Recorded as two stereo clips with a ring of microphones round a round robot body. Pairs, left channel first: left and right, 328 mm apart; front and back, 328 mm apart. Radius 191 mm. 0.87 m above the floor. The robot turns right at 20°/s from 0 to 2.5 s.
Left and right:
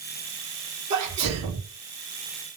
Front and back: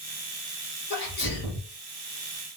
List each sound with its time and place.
0.9 s a sneeze: 65° right, 1.2 m; by 1.7 s 50° right, 1.2 m